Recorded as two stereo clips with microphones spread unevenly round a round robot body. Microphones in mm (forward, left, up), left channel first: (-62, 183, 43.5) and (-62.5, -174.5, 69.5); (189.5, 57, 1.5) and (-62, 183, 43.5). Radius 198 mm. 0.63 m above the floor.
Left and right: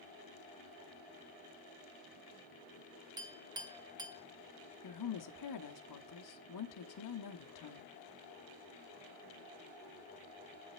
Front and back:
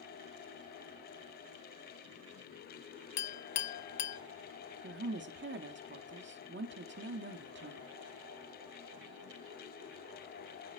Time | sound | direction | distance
3.2 | a clink | 10° right | 0.7 m
4.8 | a woman speaking | 100° left | 1.2 m